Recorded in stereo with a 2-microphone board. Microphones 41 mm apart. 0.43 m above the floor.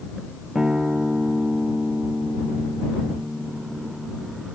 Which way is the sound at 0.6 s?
20° right (ahead or behind).